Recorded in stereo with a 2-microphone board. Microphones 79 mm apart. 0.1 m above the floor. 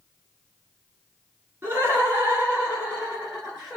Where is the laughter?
25° right (ahead or behind), 1.6 m; by 3.8 s 5° right (ahead or behind), 1.6 m.